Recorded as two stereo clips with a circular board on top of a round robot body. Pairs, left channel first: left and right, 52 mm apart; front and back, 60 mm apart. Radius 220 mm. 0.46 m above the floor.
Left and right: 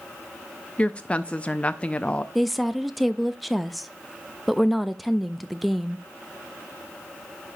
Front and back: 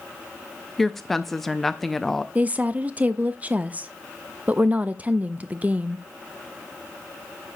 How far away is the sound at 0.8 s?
About 0.8 m.